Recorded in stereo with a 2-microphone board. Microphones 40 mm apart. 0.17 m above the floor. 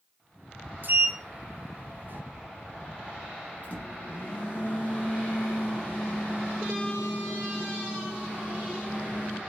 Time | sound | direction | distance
0.8 | a sliding door | 50° right (ahead or behind) | 1.3 m
3.6 | a microwave | 40° left (ahead or behind) | 2 m